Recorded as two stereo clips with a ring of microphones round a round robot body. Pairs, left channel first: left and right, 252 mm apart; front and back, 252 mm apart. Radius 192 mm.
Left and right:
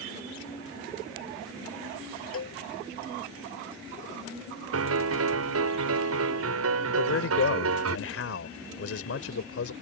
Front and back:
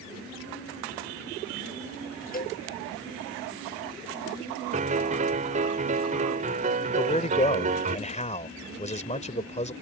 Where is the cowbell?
55° left.